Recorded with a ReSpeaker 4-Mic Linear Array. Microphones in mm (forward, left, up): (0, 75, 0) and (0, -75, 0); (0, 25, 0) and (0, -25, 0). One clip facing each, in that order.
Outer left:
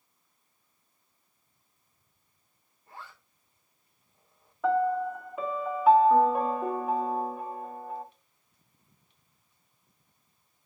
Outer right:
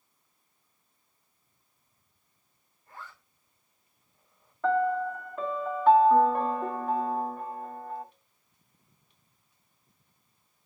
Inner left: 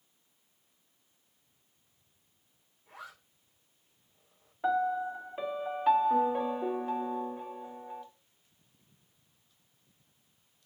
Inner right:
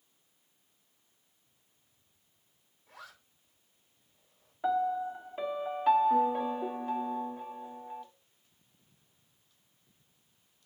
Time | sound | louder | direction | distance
2.9 | a zipper | even, inner left 3 dB | 30° left (ahead or behind) | 3 m
4.6 | a piano | even, inner left 1 dB | 5° left (ahead or behind) | 0.8 m